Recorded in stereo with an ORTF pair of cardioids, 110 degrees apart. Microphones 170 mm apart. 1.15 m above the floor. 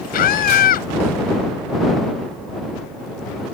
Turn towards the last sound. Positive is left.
turn(degrees=60)